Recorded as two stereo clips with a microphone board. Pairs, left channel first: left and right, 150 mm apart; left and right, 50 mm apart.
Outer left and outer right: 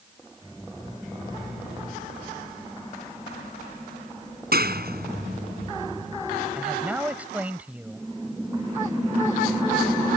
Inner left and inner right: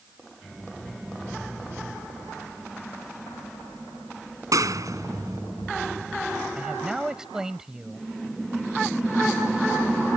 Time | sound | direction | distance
4.5 | a clap | 80° right | ?
6.5 | a man speaking | 10° right (ahead or behind) | ?